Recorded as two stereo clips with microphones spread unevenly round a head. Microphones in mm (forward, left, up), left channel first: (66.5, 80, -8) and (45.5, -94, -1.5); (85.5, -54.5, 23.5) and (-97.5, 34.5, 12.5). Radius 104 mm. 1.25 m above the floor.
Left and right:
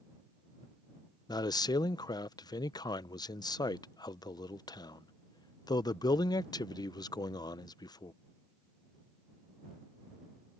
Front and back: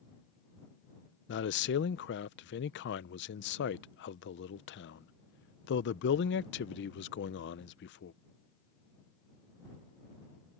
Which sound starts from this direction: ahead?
A man speaking, at 1.3 s.